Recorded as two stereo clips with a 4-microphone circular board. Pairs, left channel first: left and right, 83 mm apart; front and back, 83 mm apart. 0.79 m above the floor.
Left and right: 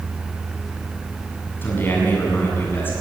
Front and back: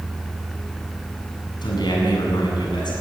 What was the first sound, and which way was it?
A man speaking, 25° left.